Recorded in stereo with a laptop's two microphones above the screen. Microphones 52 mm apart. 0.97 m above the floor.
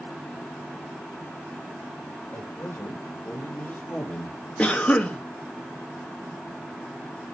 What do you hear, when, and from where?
2.3 s a man speaking: 55° left (ahead or behind), 4 m; by 4.4 s 20° left (ahead or behind), 1.8 m
4.6 s a cough: 30° left (ahead or behind), 1.5 m